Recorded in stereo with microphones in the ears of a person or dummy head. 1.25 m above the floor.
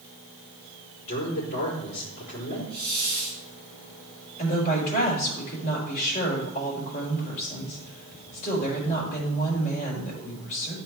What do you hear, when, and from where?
1.0 s a man speaking: 45° left (ahead or behind), 4.5 m
2.7 s a hiss: 20° right (ahead or behind), 5.5 m
4.4 s a woman speaking: 40° left (ahead or behind), 4.5 m